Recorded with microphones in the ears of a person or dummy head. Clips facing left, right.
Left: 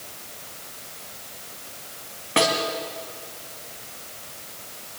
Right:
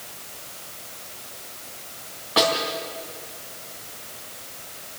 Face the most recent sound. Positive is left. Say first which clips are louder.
# even
turn(degrees=30)  # may be behind; listen again after turning